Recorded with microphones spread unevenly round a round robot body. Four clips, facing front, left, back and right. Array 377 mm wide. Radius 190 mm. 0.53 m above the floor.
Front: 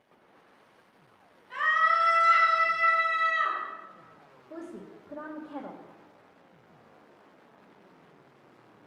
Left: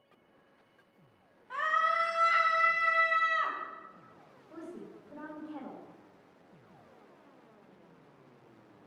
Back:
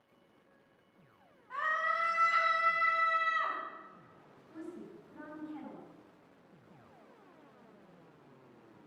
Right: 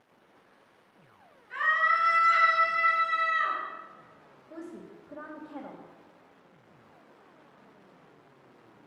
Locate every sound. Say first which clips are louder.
1.5 s a scream: right 3 dB, front 8 dB; 75° left, 4.5 m; by 3.6 s 90° left, 5.5 m
4.5 s a woman speaking: right 2 dB, front 4 dB; 10° right, 3 m